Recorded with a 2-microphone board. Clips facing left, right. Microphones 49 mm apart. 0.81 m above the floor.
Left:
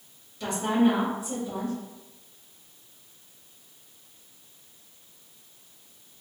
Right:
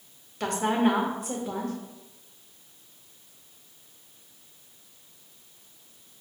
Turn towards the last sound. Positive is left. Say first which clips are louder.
# left 1 dB
turn(degrees=-60)  # may be behind; listen again after turning